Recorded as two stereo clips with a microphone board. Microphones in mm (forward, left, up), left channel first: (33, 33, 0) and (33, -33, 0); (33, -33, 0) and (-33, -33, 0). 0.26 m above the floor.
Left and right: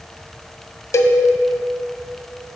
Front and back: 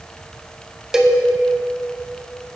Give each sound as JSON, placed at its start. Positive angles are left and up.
{"t": 0.9, "sound": "a cowbell", "azimuth_deg": 100, "distance_m": 0.5}